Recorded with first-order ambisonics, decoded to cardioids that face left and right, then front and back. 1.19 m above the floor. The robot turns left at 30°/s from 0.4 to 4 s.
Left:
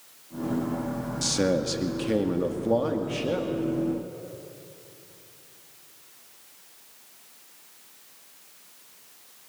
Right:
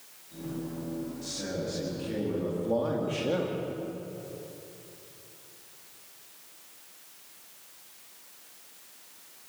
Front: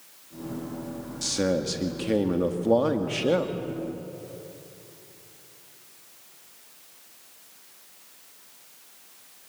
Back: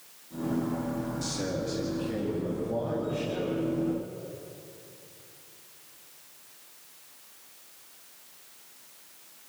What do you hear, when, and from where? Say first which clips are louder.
1.2 s a man speaking: left 13 dB, front 10 dB; 65° left, 2 m; by 3.5 s 5° right, 2 m